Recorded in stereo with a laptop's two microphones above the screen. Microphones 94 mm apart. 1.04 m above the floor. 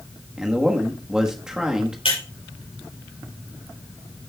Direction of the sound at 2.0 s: 80° left.